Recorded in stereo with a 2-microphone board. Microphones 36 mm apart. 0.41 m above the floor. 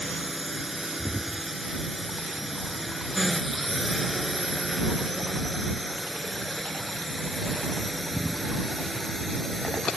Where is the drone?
5° right (ahead or behind); by 10.0 s 15° left (ahead or behind).